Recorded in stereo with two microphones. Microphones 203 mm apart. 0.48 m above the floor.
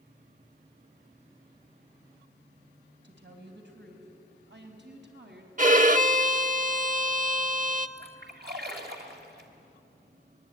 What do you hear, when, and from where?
3.0 s a woman speaking: 70° right (ahead or behind), 3.5 m; by 5.5 s 65° right (ahead or behind), 4.5 m
5.6 s a violin: 45° right (ahead or behind), 0.7 m
8.0 s a splash: 60° right (ahead or behind), 2.5 m